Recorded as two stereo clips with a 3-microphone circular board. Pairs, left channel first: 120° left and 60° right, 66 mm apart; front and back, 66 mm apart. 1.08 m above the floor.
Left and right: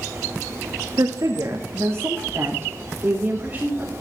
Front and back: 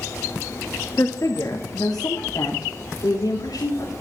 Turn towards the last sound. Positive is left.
turn(degrees=10)